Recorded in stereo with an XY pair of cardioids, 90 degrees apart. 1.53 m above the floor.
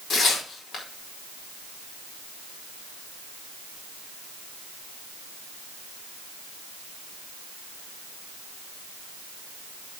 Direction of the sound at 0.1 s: 60° left.